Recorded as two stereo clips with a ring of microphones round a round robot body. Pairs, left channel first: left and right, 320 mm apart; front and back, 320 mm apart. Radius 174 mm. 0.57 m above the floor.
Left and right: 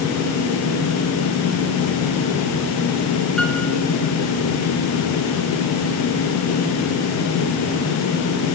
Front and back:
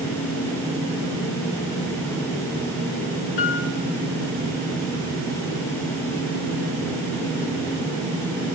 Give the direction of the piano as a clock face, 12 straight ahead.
12 o'clock.